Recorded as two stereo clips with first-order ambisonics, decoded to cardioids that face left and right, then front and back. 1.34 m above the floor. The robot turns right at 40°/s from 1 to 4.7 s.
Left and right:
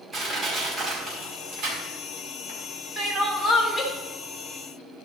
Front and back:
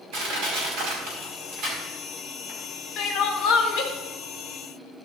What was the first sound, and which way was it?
Crushing, 160° right.